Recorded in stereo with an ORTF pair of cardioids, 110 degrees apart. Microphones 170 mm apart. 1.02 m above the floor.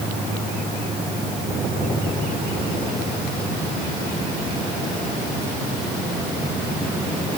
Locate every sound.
Only background noise.